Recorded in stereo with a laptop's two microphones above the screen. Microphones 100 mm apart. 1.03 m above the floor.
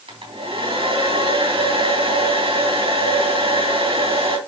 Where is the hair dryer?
70° right (ahead or behind), 3 m.